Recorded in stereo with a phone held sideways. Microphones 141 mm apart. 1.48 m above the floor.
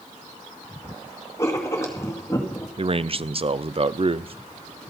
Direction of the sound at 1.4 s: 20° left (ahead or behind).